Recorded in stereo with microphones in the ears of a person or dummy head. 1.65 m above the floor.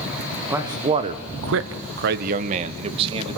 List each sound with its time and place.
0.5 s a man speaking: 15° right (ahead or behind), 1.6 m; by 3.4 s 30° right (ahead or behind), 2.5 m